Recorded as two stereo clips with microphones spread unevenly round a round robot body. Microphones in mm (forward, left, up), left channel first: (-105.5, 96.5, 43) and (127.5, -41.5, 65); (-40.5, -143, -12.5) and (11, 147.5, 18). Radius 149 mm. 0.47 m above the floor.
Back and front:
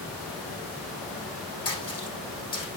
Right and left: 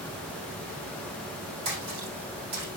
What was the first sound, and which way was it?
A splash, 115° left.